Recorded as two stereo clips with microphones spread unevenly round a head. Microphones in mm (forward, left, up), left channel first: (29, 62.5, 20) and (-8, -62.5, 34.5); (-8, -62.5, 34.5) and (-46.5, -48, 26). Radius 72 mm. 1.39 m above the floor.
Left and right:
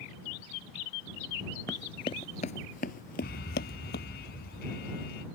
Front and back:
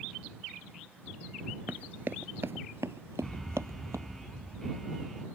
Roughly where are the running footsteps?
Behind left.